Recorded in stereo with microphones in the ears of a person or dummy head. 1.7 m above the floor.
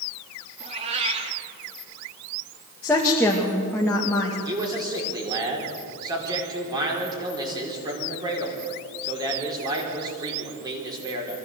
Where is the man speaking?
25° right (ahead or behind), 4.5 m.